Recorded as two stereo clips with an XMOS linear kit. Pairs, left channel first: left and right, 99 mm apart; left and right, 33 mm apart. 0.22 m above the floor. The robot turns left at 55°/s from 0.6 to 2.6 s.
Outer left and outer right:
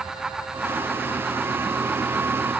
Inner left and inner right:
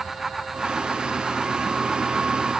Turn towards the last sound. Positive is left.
No sound to turn to.